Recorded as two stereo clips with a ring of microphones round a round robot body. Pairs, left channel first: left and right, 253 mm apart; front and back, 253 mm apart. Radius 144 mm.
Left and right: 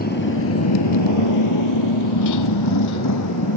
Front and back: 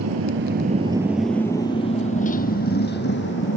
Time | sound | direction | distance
0.0 | a motorcycle | 145° left | ?